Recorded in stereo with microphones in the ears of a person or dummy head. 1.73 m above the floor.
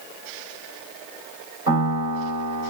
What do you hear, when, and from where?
1.7 s a piano: 15° right (ahead or behind), 1.8 m